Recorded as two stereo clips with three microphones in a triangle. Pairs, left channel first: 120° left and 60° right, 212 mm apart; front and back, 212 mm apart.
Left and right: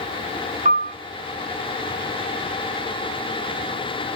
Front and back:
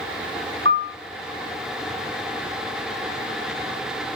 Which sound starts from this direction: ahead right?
A piano, at 0.7 s.